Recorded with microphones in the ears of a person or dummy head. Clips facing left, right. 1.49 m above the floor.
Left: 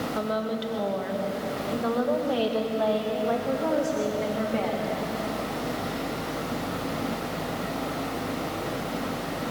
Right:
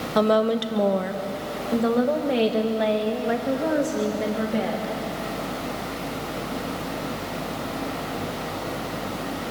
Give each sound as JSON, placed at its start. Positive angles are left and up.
{"t": 0.1, "sound": "a woman speaking", "side_deg": -75, "distance_m": 1.2}